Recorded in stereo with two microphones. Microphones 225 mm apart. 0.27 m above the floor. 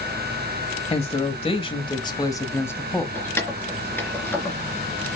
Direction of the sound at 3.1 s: 10° left (ahead or behind).